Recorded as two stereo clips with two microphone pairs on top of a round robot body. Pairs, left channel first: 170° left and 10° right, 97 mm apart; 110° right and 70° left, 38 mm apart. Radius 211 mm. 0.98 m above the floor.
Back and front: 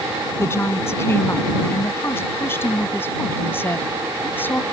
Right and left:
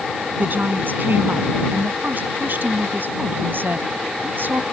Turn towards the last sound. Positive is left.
turn(degrees=100)